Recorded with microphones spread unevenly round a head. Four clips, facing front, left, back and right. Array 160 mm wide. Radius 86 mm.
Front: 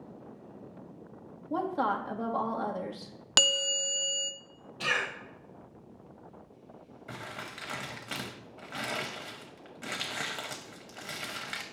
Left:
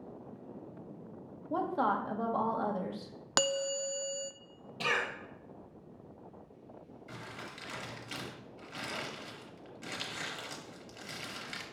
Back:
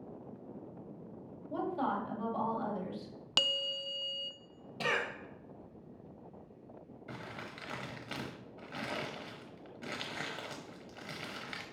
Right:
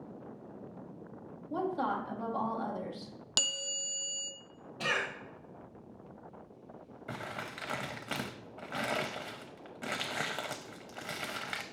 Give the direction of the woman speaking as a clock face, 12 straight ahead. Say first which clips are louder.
Left 2 dB, front 5 dB; 11 o'clock.